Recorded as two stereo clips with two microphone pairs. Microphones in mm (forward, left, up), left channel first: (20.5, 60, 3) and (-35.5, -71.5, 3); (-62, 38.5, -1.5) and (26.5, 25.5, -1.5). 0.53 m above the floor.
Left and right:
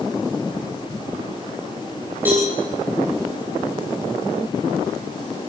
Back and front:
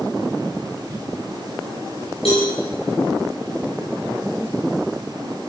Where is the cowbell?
170° left, 9.5 m.